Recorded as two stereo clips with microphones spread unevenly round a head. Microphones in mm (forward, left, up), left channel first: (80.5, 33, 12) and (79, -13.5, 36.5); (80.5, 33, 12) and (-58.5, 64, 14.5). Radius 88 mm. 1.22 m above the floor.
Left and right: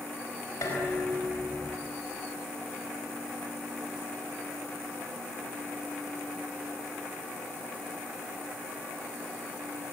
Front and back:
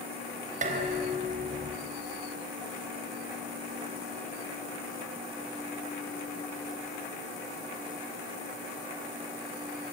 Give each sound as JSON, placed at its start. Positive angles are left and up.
{"t": 0.6, "sound": "dishes clattering", "azimuth_deg": 140, "distance_m": 4.5}